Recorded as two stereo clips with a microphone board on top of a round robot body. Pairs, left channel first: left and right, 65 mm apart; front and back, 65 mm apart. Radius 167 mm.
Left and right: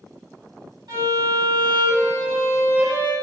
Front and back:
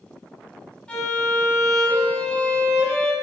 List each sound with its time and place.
0.9 s a violin: 75° right, 2 m